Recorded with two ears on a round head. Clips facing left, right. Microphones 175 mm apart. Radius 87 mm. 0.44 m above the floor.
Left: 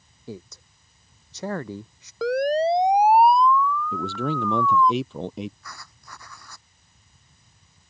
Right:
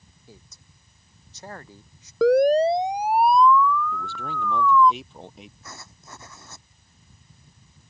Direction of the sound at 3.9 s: 60° left (ahead or behind).